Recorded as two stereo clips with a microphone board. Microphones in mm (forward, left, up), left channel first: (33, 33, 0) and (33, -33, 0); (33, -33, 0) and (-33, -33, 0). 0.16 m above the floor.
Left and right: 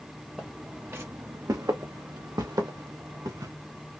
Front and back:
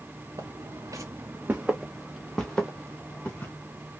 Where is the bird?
No bird in this recording.